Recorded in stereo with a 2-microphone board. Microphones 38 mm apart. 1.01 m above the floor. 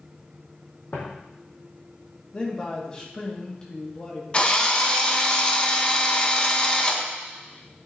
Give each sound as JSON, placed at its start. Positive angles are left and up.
{"t": 0.9, "sound": "footsteps", "side_deg": 60, "distance_m": 3.0}
{"t": 2.3, "sound": "a man speaking", "side_deg": 25, "distance_m": 1.9}
{"t": 4.3, "sound": "a drill", "side_deg": 25, "distance_m": 1.0}